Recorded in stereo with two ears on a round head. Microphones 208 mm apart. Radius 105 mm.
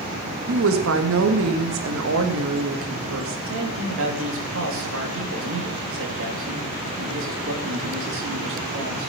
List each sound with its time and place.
0.5 s a woman speaking: 60° right (ahead or behind), 1.5 m
3.5 s a man speaking: 60° right (ahead or behind), 2.5 m